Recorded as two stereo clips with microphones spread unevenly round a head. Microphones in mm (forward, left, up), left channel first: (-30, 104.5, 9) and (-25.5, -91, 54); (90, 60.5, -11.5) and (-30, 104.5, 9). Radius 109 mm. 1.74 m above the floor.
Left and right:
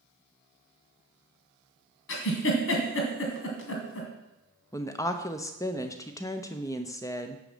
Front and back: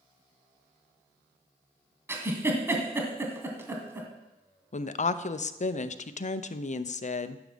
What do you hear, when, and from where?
2.1 s a giggle: 105° left, 2.5 m
4.7 s a woman speaking: 10° left, 0.7 m